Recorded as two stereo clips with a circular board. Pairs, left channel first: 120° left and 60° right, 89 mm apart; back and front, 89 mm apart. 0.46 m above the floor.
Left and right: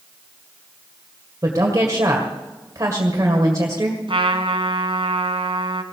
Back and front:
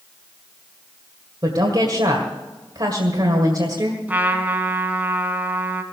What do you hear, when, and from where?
1.4 s a woman speaking: 20° right, 1.8 m
4.1 s a trumpet: 70° right, 1.6 m